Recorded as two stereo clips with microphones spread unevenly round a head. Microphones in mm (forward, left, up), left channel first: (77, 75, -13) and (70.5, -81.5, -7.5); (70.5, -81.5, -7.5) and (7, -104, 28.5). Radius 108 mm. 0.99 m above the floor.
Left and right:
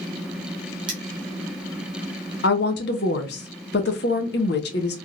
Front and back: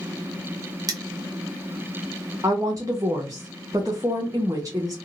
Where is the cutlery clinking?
160° right, 0.5 m.